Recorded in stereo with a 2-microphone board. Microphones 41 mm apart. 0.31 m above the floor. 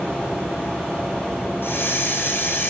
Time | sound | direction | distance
1.6 | a hiss | 65° left (ahead or behind) | 4 m